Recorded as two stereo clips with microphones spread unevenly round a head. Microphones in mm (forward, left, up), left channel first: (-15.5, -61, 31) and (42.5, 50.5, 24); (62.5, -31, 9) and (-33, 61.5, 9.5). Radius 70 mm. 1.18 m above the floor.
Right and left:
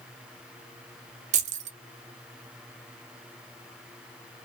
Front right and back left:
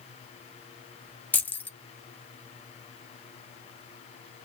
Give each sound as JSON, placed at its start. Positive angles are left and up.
{"t": 1.3, "sound": "keys jangling", "azimuth_deg": 30, "distance_m": 0.8}